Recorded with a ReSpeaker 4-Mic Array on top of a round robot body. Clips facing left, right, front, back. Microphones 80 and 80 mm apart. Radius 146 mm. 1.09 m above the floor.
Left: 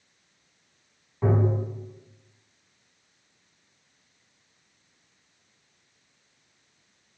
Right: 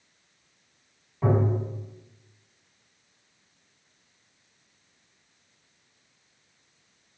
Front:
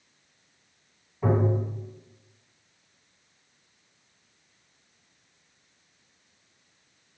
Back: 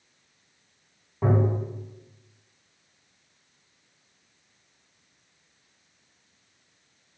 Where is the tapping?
170° left, 1.9 m.